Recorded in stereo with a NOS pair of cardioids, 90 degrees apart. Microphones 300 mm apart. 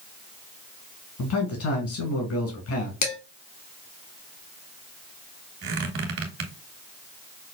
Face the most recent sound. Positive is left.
turn(degrees=-55)